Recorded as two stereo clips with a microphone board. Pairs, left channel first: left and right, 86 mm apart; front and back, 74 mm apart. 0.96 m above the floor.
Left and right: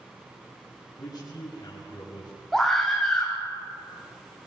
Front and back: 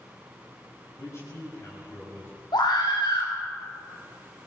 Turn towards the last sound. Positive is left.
turn(degrees=5)